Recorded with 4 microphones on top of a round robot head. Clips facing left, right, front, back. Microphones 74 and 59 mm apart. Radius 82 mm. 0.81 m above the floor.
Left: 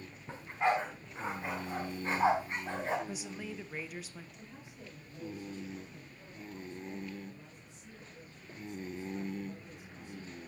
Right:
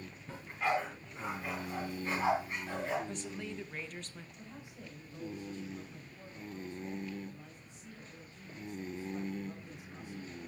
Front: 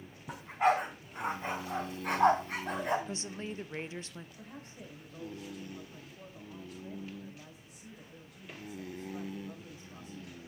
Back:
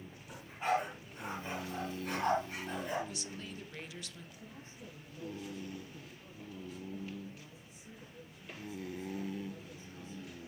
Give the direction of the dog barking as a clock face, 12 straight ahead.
11 o'clock.